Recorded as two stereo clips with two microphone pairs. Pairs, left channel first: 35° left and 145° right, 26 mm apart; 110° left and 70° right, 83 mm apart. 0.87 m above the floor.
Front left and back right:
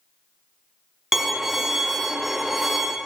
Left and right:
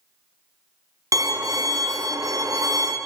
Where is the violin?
70° right, 0.7 m.